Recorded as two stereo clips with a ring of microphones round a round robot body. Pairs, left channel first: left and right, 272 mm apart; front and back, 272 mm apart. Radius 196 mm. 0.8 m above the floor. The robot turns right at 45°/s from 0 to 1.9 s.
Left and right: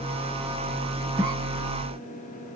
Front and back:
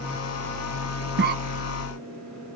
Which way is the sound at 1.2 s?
165° right.